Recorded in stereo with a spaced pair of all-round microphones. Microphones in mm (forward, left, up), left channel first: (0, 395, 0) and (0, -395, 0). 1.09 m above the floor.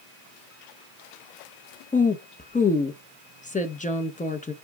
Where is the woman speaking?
10° left (ahead or behind), 0.9 m.